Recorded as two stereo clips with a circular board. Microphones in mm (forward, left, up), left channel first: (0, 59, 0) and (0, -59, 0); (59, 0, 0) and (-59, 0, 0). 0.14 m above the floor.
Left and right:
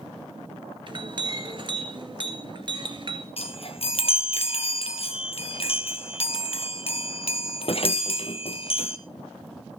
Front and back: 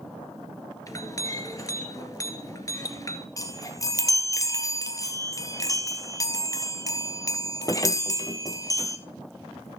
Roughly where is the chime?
Ahead left.